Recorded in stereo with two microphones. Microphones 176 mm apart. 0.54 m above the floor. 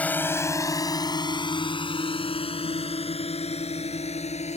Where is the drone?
10° left (ahead or behind); by 4.6 s 35° left (ahead or behind).